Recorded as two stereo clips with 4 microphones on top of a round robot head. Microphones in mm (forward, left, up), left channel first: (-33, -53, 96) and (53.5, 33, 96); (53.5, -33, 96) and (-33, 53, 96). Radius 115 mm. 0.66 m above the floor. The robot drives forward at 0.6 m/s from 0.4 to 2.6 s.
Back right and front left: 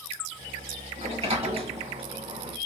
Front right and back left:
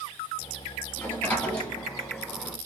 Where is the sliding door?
25° left, 1.9 m; by 2.6 s 50° left, 1.3 m.